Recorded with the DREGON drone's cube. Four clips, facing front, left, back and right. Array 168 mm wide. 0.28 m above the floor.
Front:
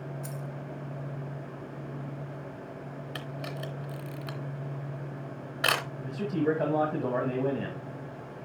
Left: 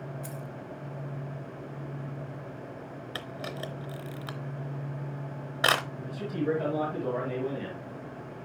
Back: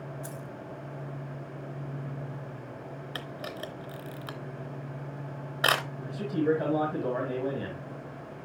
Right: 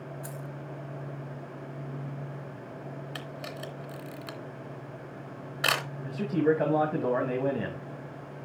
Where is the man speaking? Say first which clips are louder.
Right 5 dB, back 1 dB; 75° right, 1.7 m.